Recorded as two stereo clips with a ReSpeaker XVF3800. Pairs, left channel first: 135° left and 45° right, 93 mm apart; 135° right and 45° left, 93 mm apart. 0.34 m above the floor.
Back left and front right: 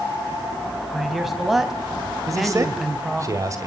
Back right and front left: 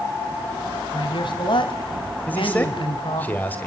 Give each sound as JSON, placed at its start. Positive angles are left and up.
{"t": 0.9, "sound": "a man speaking", "azimuth_deg": -130, "distance_m": 2.5}
{"t": 2.3, "sound": "a man speaking", "azimuth_deg": -75, "distance_m": 1.8}